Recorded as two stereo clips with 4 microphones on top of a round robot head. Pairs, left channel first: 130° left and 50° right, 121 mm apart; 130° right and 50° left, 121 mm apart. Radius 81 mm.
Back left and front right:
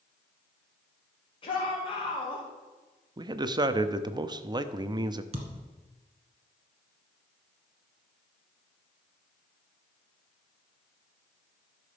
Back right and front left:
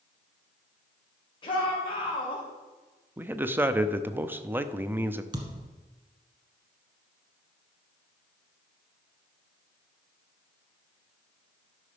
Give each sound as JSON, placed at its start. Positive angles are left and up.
{"t": 1.4, "sound": "a shout", "azimuth_deg": 175, "distance_m": 2.5}
{"t": 3.2, "sound": "a man speaking", "azimuth_deg": -15, "distance_m": 0.7}
{"t": 5.3, "sound": "a thud", "azimuth_deg": -5, "distance_m": 1.5}